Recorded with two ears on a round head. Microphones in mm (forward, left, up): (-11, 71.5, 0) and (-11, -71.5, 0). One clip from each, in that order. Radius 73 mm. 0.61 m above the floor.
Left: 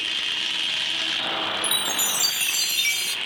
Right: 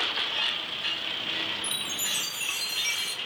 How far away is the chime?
About 1.3 m.